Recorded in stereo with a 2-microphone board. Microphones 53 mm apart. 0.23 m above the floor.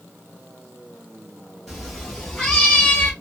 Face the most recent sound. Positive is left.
turn(degrees=30)  # may be behind; listen again after turning